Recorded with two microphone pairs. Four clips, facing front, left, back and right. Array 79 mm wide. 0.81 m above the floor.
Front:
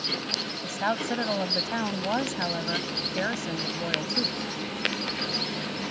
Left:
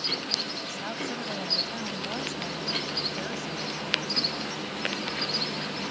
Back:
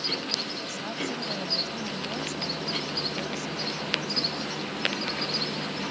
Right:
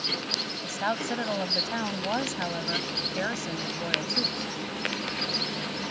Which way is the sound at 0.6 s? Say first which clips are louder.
Right 8 dB, front 8 dB; 35° right.